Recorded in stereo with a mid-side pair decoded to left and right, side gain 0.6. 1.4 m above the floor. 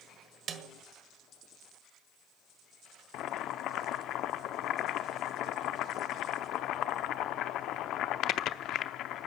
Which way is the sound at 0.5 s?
45° right.